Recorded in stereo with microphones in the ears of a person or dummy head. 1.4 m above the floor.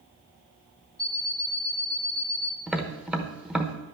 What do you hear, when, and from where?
1.0 s an alarm clock: 5° left (ahead or behind), 1.3 m
2.7 s tapping: centre (ahead or behind), 1.0 m